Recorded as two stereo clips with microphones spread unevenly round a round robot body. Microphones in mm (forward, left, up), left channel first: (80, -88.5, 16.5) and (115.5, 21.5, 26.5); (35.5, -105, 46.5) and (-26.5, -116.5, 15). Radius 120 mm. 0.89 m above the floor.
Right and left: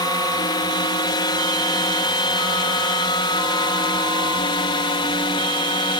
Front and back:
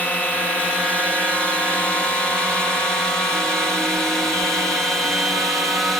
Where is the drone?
80° right; by 6.0 s 115° right.